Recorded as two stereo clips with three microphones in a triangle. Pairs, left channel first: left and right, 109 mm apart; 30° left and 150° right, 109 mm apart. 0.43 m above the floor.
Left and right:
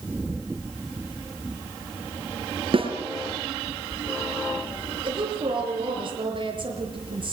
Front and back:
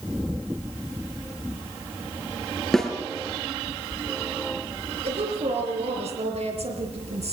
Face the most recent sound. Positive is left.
turn(degrees=-130)